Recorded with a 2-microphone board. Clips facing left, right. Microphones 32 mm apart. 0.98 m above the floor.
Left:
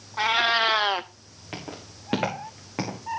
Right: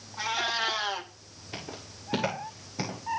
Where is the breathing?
No breathing in this recording.